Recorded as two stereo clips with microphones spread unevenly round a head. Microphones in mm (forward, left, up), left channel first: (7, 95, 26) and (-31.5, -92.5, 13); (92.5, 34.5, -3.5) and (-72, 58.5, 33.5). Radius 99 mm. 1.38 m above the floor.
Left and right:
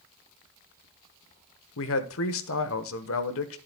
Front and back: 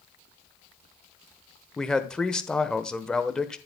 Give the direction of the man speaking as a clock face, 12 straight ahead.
10 o'clock.